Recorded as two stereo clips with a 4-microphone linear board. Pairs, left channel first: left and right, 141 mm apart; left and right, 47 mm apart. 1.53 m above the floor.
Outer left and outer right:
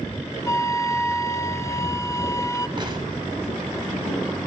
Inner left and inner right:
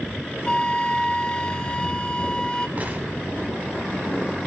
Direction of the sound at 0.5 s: 20° left (ahead or behind).